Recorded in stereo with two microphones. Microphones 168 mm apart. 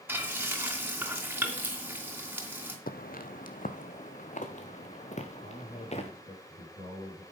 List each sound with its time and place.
0.1 s frying: 15° right (ahead or behind), 2.5 m
2.9 s footsteps: 65° left (ahead or behind), 1.0 m; by 6.1 s 45° left (ahead or behind), 2.5 m
5.4 s a man speaking: 70° left (ahead or behind), 4.5 m